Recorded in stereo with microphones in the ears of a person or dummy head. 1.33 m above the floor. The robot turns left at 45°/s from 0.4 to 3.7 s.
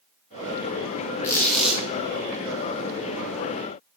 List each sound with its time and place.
1.2 s a squeak: 20° left (ahead or behind), 0.6 m; by 1.8 s 5° right (ahead or behind), 0.6 m